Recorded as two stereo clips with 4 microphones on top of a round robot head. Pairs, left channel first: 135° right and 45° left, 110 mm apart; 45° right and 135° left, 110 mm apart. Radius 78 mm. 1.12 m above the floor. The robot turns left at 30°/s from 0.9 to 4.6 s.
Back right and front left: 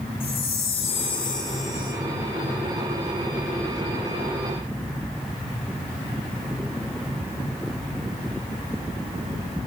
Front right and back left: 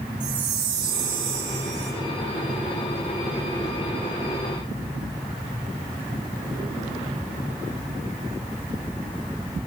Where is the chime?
175° right, 9.5 m; by 1.9 s 155° left, 9.5 m.